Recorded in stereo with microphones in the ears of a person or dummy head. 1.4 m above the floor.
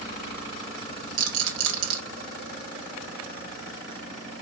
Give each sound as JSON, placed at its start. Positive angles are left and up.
{"t": 1.2, "sound": "a rattle", "side_deg": -85, "distance_m": 1.1}